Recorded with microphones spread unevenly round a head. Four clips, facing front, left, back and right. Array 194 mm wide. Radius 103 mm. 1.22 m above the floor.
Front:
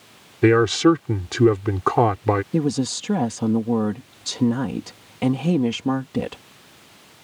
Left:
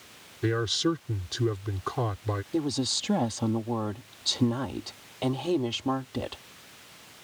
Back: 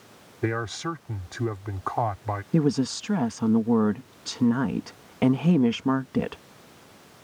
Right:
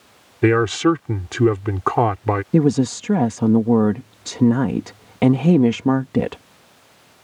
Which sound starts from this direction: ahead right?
A man speaking, at 0.4 s.